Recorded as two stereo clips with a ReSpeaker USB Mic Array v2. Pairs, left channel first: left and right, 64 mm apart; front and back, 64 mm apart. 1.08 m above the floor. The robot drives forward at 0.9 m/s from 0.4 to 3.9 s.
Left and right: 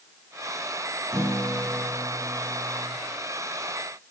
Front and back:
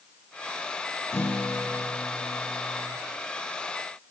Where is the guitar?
50° right, 3.5 m; by 3.0 s 85° right, 2.5 m.